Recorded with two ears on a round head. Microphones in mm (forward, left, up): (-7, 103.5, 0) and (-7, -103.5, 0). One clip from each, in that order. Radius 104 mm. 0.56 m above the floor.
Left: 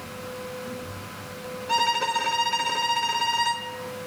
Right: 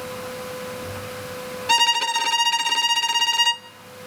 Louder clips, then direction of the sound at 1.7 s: Right 4 dB; 80° right.